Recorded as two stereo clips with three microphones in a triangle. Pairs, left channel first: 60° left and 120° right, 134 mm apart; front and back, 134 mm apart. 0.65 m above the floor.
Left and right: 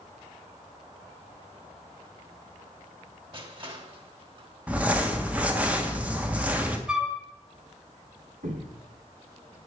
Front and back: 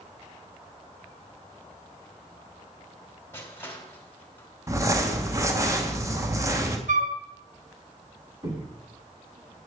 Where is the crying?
I don't hear crying.